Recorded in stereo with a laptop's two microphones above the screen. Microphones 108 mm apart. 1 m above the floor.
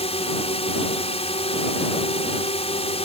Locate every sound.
0.0 s a drone: 70° left (ahead or behind)